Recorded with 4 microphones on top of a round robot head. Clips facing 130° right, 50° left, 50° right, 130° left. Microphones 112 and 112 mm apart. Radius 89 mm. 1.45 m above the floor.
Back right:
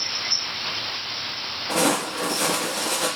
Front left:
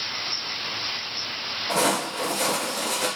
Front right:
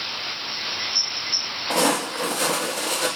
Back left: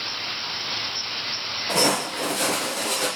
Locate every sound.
1.7 s footsteps: 125° left, 1.9 m; by 3.1 s 135° left, 1.5 m